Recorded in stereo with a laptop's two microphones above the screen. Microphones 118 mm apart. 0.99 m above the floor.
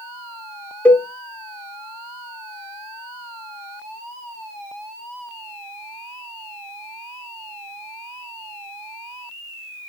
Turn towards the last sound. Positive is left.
turn(degrees=15)  # may be behind; listen again after turning